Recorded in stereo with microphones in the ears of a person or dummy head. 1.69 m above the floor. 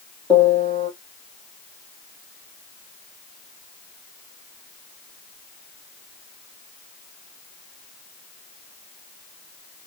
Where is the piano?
15° left (ahead or behind), 1.5 m.